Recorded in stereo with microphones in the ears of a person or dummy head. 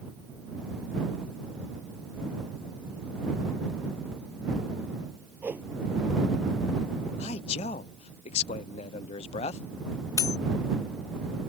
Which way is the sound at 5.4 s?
5° right (ahead or behind).